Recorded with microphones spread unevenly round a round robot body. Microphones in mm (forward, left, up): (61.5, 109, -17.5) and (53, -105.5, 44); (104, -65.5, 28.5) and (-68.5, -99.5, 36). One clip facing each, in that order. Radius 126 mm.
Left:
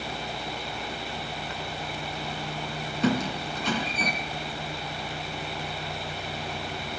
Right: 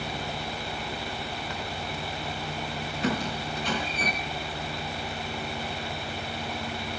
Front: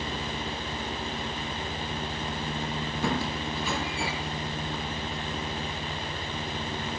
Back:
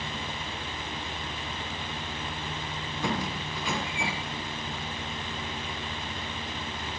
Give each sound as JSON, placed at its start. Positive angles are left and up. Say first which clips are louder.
{"t": 3.0, "sound": "a squeak", "louder": "left 4 dB, front 1 dB", "azimuth_deg": 95, "distance_m": 3.0}